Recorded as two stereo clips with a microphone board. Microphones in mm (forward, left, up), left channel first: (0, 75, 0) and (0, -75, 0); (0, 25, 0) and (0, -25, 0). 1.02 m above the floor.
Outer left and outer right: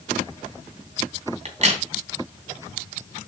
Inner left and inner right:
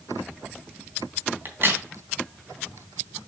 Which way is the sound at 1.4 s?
50° right (ahead or behind).